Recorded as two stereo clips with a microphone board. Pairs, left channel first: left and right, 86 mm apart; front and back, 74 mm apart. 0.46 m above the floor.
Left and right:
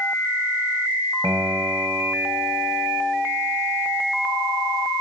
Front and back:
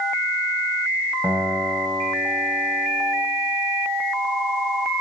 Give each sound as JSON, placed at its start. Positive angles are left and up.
{"t": 1.2, "sound": "a guitar", "azimuth_deg": -130, "distance_m": 2.5}